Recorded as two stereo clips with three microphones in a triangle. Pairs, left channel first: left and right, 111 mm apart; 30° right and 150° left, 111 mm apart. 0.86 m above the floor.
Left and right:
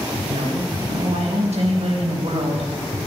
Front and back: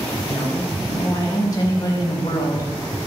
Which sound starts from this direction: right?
A woman speaking, at 0.3 s.